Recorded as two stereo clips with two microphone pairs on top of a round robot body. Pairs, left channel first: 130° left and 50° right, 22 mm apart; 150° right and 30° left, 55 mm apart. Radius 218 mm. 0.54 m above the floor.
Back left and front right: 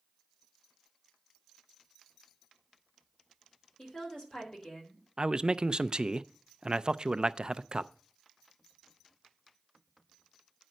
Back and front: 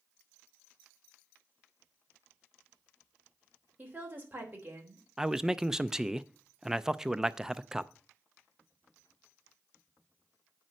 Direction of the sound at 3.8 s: 85° left.